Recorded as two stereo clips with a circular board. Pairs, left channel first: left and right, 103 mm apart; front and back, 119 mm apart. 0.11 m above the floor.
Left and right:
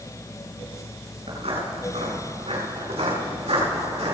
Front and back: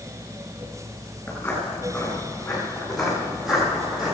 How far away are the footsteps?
About 7 m.